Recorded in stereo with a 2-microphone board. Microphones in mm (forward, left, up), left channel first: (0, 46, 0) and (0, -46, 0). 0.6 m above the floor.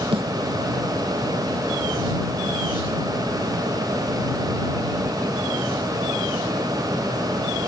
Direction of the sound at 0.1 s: 80° right.